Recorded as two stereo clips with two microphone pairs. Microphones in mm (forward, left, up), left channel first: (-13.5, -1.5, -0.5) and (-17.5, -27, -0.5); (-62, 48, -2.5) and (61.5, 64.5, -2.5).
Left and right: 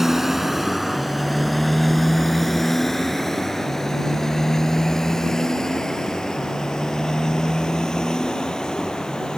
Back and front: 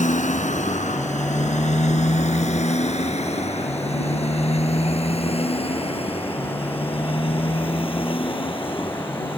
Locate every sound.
0.0 s a motorcycle: 175° right; by 9.4 s 140° left